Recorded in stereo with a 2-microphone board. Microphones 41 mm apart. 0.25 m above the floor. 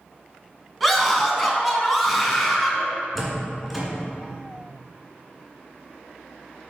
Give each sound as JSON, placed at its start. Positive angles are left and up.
{"t": 0.8, "sound": "a scream", "side_deg": 0, "distance_m": 2.5}
{"t": 3.1, "sound": "a door slam", "side_deg": 0, "distance_m": 2.0}